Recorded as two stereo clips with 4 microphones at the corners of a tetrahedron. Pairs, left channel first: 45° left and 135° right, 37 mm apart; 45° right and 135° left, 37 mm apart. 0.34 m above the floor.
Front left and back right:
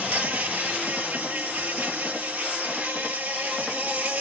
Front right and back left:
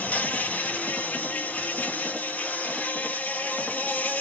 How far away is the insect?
About 0.8 m.